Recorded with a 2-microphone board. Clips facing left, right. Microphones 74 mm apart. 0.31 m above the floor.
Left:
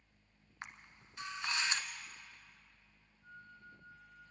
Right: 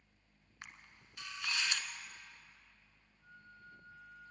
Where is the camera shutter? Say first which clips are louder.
Left 4 dB; 30° left (ahead or behind), 1.2 m.